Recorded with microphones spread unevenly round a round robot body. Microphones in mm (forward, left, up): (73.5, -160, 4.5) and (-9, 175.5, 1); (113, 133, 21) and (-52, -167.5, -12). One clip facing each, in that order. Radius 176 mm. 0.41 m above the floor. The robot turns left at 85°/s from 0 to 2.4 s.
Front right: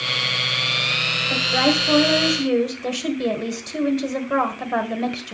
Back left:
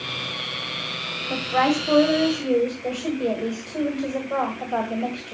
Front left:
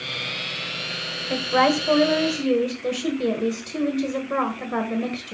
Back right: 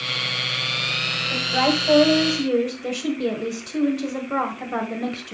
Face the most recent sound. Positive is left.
turn(degrees=-35)